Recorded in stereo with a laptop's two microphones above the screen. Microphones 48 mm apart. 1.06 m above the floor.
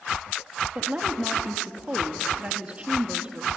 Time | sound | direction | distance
0.8 | a woman speaking | 30° right (ahead or behind) | 1.9 m